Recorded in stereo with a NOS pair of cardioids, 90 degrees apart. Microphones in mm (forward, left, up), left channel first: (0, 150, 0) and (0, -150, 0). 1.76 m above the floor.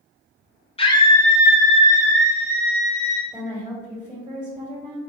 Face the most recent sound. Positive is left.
turn(degrees=-15)